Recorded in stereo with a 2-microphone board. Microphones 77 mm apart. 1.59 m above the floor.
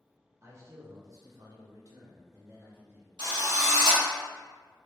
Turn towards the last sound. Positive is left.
turn(degrees=-70)  # may be behind; listen again after turning